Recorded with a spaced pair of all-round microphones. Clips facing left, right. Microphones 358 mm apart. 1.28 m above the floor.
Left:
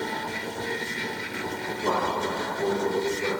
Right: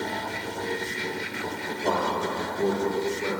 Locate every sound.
1.7 s a man speaking: 25° left (ahead or behind), 1.2 m; by 3.3 s 70° right (ahead or behind), 1.5 m